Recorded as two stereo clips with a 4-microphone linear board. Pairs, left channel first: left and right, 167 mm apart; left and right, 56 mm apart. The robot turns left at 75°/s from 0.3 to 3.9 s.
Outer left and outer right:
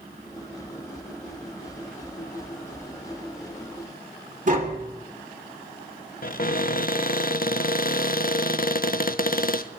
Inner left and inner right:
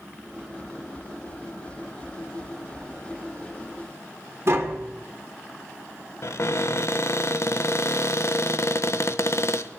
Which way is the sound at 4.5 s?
50° right (ahead or behind).